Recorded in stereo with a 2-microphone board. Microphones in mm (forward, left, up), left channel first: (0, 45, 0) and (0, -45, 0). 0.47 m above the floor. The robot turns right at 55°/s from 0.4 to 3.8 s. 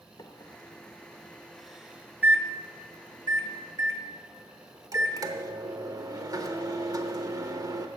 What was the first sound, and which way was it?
A microwave, 45° left (ahead or behind).